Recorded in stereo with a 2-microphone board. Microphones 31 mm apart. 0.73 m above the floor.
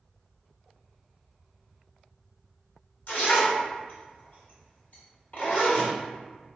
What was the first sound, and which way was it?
A zipper, 50° left (ahead or behind).